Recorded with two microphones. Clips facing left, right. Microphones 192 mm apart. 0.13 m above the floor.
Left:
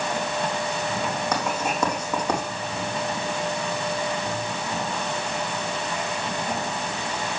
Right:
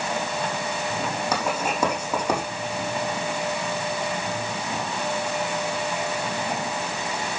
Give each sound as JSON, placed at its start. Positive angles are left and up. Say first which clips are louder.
{"t": 1.3, "sound": "writing", "louder": "even", "side_deg": -10, "distance_m": 6.5}